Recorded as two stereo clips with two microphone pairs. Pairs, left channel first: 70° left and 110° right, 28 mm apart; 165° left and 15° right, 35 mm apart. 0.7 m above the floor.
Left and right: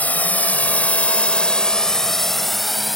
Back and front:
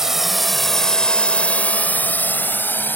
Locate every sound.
0.0 s a drone: 70° left; by 3.0 s 160° left